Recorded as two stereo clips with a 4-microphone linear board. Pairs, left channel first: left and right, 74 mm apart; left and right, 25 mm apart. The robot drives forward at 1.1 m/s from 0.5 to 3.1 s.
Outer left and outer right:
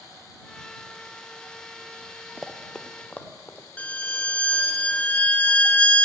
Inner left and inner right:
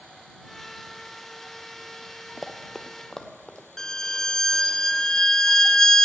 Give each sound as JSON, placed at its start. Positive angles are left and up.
{"t": 2.4, "sound": "running footsteps", "side_deg": -10, "distance_m": 0.7}
{"t": 3.8, "sound": "a violin", "side_deg": 20, "distance_m": 0.5}